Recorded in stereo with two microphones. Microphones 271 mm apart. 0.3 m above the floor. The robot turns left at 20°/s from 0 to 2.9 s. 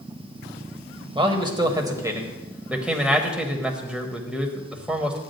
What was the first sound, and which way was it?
A man speaking, 20° right (ahead or behind).